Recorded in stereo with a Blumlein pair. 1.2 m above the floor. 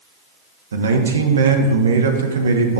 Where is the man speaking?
70° right, 0.9 m.